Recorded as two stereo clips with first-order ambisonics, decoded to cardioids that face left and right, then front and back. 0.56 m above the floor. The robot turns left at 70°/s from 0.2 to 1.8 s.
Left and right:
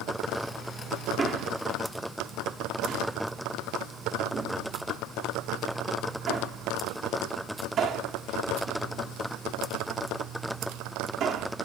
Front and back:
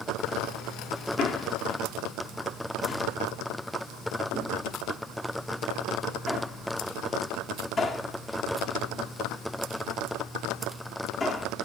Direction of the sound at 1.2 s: 20° right.